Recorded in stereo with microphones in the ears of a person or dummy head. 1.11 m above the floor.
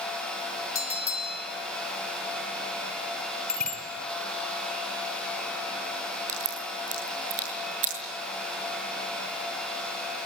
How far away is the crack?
About 8 m.